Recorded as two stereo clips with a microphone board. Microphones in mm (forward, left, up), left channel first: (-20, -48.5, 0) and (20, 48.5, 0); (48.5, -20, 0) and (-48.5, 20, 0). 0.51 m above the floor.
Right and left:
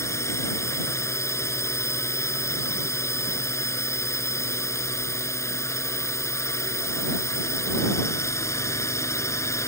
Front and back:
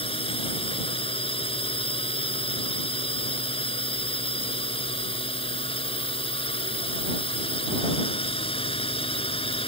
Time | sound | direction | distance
0.0 | a drone | 50° right | ?